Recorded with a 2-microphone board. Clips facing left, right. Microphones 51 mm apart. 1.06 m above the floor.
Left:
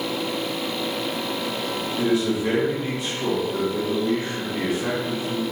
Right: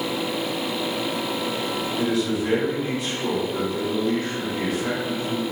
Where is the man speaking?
25° left (ahead or behind), 1.4 m.